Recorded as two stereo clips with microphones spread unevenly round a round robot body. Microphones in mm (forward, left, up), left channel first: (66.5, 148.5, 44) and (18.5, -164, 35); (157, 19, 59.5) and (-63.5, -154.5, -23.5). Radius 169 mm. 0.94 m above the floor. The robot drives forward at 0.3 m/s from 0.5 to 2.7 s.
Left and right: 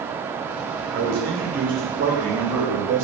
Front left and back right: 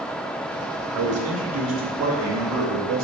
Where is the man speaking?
155° right, 0.8 m; by 3.0 s 165° right, 1.2 m.